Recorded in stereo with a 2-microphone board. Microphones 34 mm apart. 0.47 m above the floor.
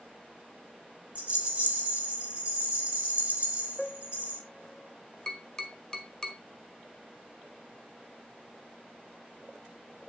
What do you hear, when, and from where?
1.1 s a rattle: 35° right (ahead or behind), 3 m
3.8 s a piano: 15° left (ahead or behind), 1.0 m
5.3 s tapping: 20° left (ahead or behind), 1.4 m